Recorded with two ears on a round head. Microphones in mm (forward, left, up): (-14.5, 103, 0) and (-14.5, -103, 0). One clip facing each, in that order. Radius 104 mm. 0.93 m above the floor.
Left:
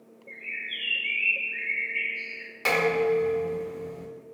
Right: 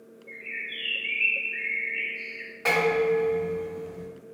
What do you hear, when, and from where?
0.3 s a bird: 5° left (ahead or behind), 1.4 m
2.6 s dishes clattering: 40° left (ahead or behind), 1.4 m